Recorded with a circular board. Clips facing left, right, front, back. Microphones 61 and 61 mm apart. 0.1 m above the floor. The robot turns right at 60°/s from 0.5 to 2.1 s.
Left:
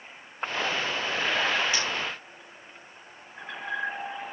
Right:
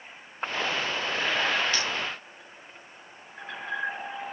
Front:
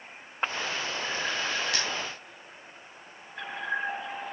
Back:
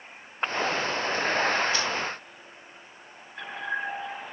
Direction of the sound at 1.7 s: 10° left.